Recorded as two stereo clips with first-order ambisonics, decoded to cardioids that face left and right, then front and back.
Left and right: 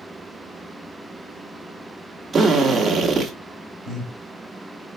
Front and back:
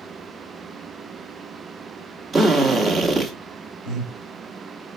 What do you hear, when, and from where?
2.3 s a drill: 150° right, 0.9 m
3.9 s breathing: 170° left, 1.6 m